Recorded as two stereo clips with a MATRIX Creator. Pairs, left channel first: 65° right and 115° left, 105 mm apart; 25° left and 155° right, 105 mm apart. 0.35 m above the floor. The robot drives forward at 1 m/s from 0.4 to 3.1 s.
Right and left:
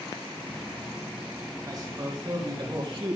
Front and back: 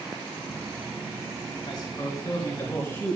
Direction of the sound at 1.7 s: 65° left.